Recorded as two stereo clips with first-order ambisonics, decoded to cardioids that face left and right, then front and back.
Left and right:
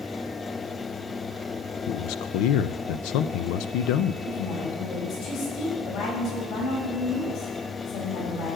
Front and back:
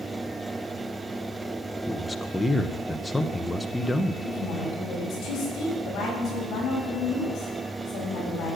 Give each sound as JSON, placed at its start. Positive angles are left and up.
{"t": 1.9, "sound": "a man speaking", "azimuth_deg": 85, "distance_m": 0.6}
{"t": 4.2, "sound": "a woman speaking", "azimuth_deg": 65, "distance_m": 7.0}